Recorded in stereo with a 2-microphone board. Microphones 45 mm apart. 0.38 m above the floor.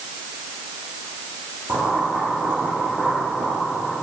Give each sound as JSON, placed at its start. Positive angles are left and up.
{"t": 1.7, "sound": "boiling", "side_deg": -50, "distance_m": 7.0}